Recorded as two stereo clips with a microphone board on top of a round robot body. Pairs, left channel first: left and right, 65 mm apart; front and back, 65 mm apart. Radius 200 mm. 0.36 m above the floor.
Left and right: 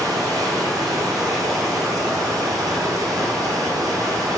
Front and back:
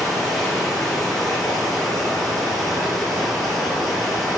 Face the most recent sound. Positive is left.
turn(degrees=-85)